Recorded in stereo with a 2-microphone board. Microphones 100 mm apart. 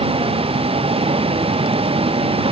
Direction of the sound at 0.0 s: 65° right (ahead or behind).